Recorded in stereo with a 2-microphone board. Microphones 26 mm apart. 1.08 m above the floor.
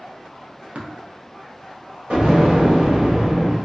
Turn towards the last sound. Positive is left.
turn(degrees=-55)  # may be behind; listen again after turning